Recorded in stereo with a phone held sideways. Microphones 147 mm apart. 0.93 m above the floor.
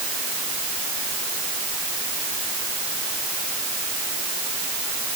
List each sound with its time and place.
Only background noise.